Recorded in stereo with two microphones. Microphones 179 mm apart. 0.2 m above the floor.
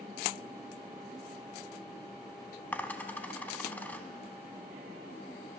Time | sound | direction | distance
2.7 | a dropped coin | 10° left (ahead or behind) | 0.5 m